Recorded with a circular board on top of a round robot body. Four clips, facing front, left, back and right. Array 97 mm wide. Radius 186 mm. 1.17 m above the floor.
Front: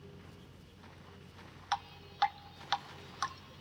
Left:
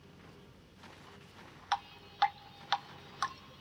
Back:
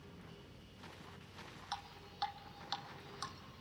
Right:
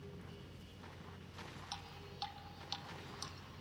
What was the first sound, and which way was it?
Dripping, 55° left.